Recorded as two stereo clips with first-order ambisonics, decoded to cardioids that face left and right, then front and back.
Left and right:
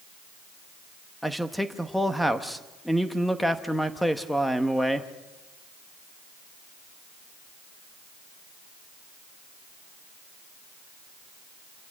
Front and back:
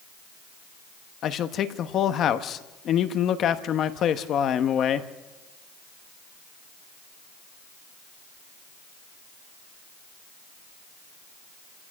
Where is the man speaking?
Straight ahead, 0.9 m.